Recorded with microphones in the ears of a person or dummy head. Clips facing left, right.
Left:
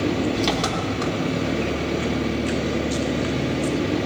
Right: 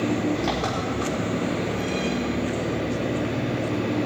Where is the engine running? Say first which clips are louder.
Left 2 dB; 45° left (ahead or behind), 2 m.